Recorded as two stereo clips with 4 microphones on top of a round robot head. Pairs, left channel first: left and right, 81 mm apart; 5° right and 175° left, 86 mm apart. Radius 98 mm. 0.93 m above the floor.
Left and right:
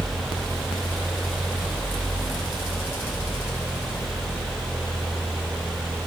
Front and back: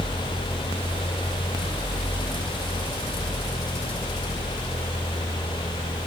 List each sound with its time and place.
Only background noise.